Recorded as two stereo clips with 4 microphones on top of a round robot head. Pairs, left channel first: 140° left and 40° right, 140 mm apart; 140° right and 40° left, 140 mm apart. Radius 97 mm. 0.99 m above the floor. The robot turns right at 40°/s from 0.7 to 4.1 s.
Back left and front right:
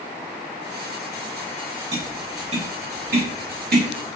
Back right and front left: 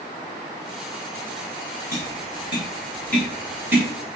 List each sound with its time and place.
1.9 s tapping: 105° right, 7.5 m; by 3.9 s 25° right, 7.5 m